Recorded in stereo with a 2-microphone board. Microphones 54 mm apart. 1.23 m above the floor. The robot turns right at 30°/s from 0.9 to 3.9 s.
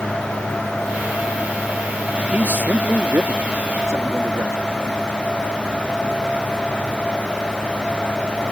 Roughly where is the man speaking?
Behind right.